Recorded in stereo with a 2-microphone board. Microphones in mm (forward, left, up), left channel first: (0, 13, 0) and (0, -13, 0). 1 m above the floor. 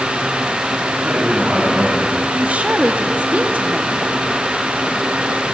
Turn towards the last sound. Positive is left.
turn(degrees=-70)  # may be behind; listen again after turning